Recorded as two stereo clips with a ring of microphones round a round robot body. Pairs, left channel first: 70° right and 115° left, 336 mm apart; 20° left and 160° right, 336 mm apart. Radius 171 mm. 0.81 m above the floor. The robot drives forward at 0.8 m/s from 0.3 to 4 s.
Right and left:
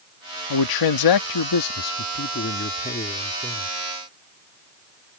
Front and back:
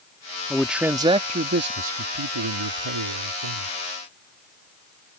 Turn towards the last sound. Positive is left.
turn(degrees=-150)